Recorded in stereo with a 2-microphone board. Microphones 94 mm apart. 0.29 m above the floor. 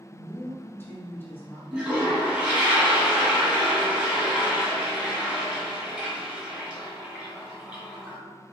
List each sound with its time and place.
0.1 s a woman speaking: 20° left (ahead or behind), 1.8 m
1.7 s a toilet flushing: 10° right (ahead or behind), 1.8 m